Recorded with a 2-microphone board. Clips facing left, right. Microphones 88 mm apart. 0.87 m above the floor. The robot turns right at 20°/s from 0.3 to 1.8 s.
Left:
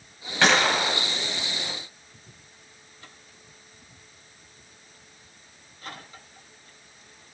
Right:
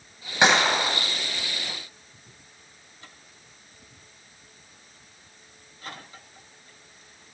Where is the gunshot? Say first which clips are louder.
Right 1 dB; 20° right (ahead or behind), 3 m; by 1.0 s 5° right (ahead or behind), 3 m.